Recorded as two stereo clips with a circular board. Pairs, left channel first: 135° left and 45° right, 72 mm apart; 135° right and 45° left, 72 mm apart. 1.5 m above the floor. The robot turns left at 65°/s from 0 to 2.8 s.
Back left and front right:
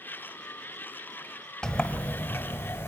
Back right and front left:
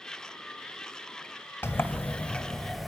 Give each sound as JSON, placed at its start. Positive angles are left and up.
{"t": 1.6, "sound": "a sliding door", "azimuth_deg": -155, "distance_m": 1.5}